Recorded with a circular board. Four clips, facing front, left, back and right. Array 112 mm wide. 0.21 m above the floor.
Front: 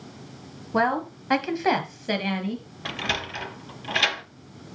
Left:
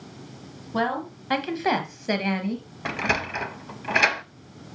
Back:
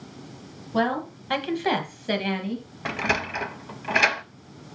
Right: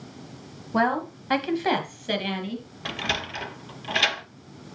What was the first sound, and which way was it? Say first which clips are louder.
A woman speaking: right 3 dB, front 1 dB; 35° right.